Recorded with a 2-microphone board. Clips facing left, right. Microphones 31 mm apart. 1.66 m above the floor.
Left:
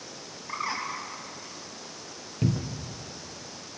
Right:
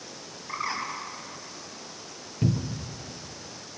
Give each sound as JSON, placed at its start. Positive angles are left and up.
{"t": 0.5, "sound": "a bird", "side_deg": 5, "distance_m": 4.5}
{"t": 2.4, "sound": "a cupboard door", "side_deg": 15, "distance_m": 0.9}